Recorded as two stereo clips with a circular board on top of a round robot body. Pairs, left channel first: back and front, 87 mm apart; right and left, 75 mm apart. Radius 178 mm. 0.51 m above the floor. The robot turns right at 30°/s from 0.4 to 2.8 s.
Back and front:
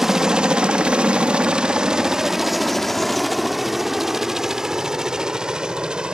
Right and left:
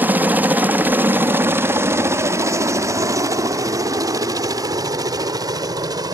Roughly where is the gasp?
I don't hear a gasp.